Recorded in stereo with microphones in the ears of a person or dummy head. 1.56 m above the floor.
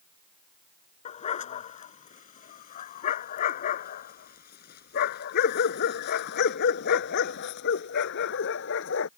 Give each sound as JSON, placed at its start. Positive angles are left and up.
{"t": 1.1, "sound": "a dog barking", "side_deg": 40}